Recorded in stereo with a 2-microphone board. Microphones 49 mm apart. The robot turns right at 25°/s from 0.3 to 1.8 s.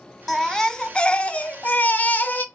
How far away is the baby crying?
About 0.5 m.